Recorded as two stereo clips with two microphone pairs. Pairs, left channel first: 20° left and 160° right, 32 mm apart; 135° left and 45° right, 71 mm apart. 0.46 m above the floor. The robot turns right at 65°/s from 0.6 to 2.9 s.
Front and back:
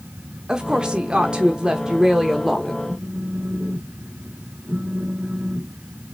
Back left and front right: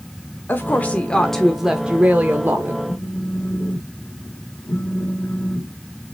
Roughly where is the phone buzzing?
Behind.